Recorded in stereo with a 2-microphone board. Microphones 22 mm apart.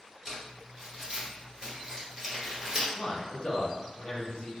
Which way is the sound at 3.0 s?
30° left (ahead or behind).